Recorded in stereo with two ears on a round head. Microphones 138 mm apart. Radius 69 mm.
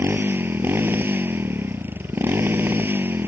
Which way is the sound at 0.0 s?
15° right (ahead or behind).